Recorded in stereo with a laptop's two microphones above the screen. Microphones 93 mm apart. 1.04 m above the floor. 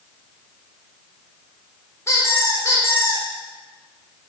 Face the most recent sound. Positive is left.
turn(degrees=30)  # may be behind; listen again after turning